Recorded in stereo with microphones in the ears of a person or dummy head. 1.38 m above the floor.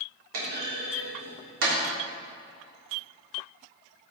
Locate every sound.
0.3 s a clunk: 65° right (ahead or behind), 3 m